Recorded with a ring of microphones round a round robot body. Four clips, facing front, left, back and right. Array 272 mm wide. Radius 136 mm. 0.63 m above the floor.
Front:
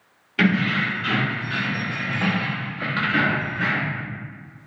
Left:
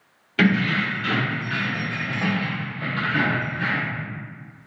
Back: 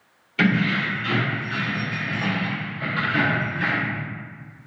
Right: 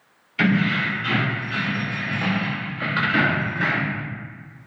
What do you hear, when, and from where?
0.4 s keys jangling: 65° left, 1.3 m; by 4.0 s 90° right, 1.0 m